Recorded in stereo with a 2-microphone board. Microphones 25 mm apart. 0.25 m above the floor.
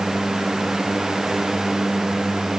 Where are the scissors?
I don't hear scissors.